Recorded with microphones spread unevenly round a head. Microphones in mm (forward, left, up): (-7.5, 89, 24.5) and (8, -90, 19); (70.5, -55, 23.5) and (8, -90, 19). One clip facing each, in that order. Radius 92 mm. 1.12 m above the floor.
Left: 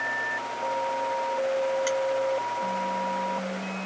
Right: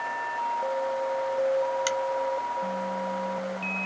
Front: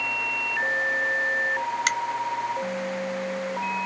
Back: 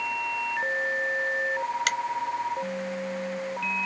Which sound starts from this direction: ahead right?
A finger snap, at 1.9 s.